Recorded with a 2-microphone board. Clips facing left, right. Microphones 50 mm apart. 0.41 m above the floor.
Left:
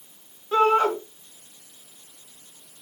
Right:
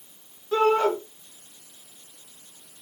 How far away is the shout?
About 4.5 m.